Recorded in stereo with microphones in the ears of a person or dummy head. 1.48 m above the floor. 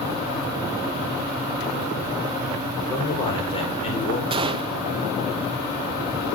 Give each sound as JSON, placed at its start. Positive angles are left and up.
{"t": 2.8, "sound": "a man speaking", "side_deg": 20, "distance_m": 5.0}
{"t": 4.3, "sound": "a gunshot", "side_deg": -20, "distance_m": 0.7}